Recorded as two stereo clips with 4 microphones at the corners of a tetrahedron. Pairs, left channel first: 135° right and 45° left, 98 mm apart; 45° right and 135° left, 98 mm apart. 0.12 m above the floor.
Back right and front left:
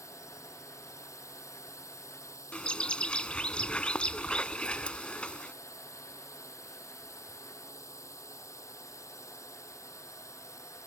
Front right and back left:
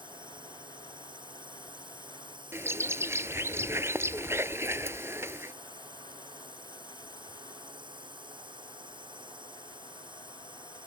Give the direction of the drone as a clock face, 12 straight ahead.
6 o'clock.